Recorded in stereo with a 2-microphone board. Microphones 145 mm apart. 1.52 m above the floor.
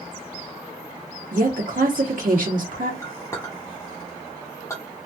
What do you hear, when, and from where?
1.3 s a woman speaking: 70° right (ahead or behind), 0.9 m
3.0 s a clink: 20° left (ahead or behind), 1.0 m